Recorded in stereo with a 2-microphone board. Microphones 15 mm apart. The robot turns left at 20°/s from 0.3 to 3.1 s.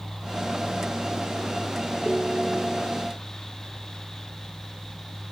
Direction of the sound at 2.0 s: 50° right (ahead or behind).